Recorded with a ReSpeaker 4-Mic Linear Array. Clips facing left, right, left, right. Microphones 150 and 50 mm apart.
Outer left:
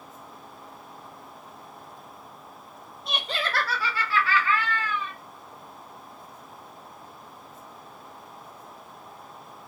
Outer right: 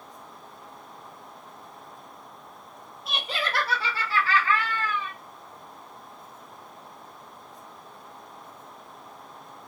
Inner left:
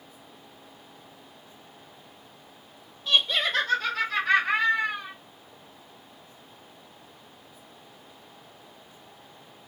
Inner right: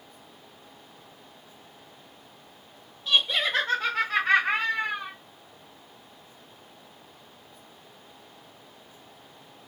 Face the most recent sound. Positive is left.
turn(degrees=-55)  # may be behind; listen again after turning